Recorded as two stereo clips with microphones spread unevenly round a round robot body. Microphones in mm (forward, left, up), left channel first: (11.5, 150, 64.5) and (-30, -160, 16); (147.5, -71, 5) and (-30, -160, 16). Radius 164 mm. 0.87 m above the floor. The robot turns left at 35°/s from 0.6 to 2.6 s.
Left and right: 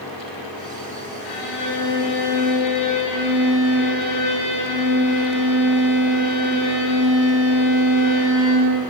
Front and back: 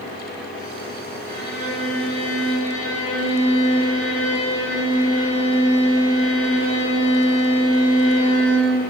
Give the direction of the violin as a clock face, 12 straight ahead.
9 o'clock.